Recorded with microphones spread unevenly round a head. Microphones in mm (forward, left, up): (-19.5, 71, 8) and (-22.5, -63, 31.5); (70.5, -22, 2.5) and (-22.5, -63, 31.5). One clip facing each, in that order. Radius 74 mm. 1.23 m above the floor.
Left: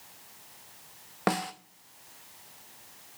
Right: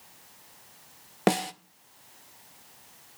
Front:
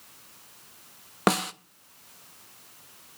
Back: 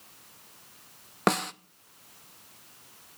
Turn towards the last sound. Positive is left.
turn(degrees=-85)